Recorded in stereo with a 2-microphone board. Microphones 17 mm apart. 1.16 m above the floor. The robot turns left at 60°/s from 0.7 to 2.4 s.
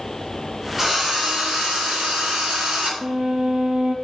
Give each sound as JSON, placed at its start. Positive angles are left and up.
{"t": 0.8, "sound": "a drill", "azimuth_deg": -20, "distance_m": 3.5}
{"t": 3.0, "sound": "a violin", "side_deg": -75, "distance_m": 1.3}